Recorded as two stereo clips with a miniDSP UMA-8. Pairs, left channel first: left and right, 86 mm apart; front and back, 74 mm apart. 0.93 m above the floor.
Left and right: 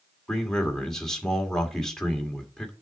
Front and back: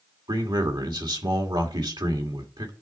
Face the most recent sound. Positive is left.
turn(degrees=175)